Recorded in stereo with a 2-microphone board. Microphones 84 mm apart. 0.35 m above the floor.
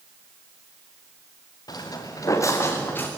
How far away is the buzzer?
I don't hear a buzzer.